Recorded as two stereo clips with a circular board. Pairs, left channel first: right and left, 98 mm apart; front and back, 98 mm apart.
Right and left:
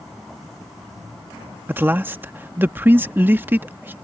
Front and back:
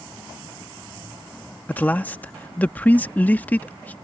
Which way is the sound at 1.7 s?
50° left.